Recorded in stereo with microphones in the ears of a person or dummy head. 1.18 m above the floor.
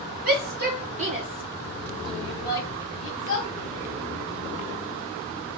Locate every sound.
0.2 s a shout: 45° right (ahead or behind), 1.4 m; by 3.5 s 50° left (ahead or behind), 1.1 m